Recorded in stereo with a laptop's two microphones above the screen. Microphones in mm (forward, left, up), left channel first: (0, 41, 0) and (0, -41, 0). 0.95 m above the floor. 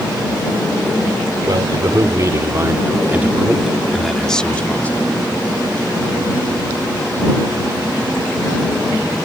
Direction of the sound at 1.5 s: 55° right (ahead or behind).